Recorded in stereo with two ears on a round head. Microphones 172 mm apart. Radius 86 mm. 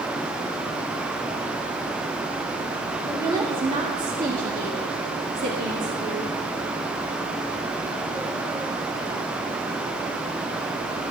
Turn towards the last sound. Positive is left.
turn(degrees=-75)  # may be behind; listen again after turning